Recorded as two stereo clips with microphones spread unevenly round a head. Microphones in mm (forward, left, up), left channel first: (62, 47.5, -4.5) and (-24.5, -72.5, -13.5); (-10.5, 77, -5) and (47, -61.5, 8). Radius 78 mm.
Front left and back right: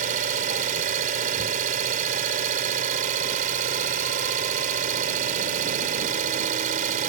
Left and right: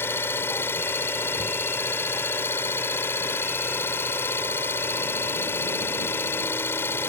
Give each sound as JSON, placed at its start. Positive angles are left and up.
{"t": 0.0, "sound": "an engine running", "azimuth_deg": -170}